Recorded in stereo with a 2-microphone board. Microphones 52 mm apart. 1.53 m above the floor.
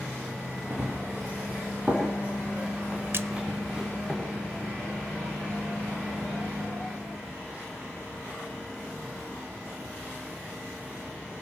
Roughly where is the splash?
Right.